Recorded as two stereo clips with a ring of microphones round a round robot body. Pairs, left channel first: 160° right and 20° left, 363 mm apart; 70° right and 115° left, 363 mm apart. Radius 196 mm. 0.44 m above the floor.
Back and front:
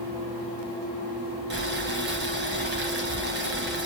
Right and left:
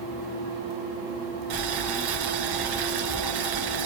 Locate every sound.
1.5 s boiling: 85° left, 2 m